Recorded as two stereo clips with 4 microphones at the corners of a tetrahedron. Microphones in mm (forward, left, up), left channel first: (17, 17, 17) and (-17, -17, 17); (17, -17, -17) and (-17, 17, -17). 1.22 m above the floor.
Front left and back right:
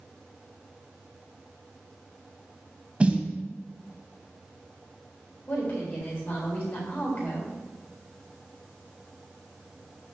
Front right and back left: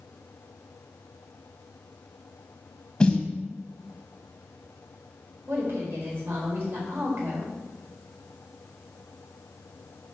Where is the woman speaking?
100° left, 4 m.